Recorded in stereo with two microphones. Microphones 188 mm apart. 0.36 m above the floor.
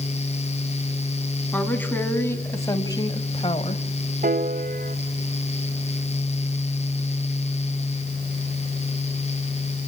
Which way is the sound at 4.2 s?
50° right (ahead or behind).